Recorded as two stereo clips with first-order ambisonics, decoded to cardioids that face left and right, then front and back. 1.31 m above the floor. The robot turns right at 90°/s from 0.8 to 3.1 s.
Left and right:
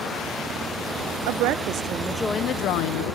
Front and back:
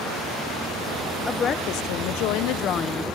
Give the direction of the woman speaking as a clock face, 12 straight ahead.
3 o'clock.